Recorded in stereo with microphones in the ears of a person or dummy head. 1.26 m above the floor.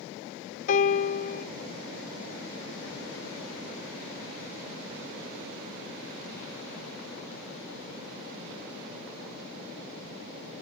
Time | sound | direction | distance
0.7 | a piano | 40° left (ahead or behind) | 1.0 m